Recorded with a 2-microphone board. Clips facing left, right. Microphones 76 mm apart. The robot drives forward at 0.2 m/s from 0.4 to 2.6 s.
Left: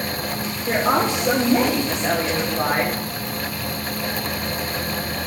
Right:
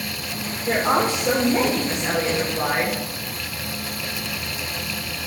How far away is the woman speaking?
About 3 m.